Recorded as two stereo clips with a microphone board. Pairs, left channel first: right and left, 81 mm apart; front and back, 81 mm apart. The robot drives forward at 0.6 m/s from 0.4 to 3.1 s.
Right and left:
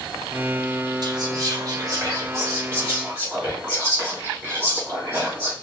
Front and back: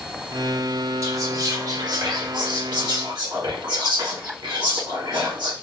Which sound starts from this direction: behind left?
Whispering, at 1.0 s.